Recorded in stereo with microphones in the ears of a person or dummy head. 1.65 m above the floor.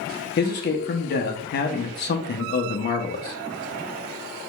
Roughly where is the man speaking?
Left.